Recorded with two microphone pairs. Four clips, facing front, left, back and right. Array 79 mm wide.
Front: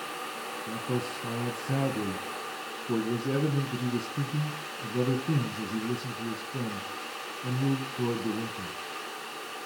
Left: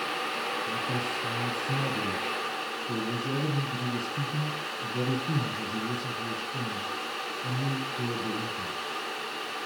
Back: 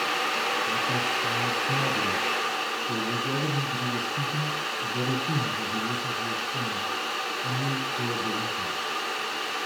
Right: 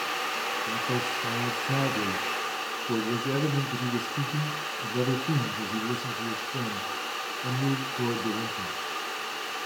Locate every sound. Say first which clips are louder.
0.7 s a man speaking: right 2 dB, back 6 dB; 70° right, 2.5 m